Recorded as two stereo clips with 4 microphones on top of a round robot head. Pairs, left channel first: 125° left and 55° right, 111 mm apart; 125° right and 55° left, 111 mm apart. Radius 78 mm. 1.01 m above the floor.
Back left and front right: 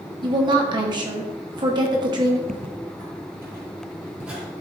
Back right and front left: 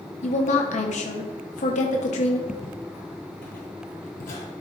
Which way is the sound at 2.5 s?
85° right.